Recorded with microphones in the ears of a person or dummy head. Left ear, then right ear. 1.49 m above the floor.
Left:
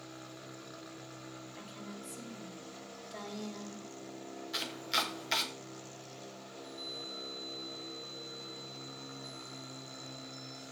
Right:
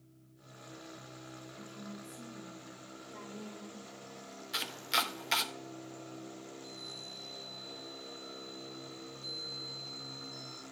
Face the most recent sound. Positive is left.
turn(degrees=-10)  # may be behind; listen again after turning